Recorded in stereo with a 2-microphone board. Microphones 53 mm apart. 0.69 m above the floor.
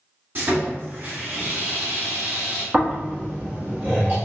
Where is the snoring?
35° right (ahead or behind), 1.4 m.